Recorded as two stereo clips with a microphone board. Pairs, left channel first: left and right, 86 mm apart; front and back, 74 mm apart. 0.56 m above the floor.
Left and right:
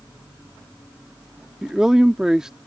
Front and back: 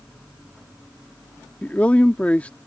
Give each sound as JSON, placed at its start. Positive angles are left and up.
{"t": 1.6, "sound": "a man speaking", "azimuth_deg": -20}